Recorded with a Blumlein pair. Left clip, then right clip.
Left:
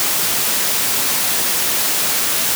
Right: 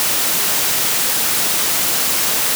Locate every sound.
Only background noise.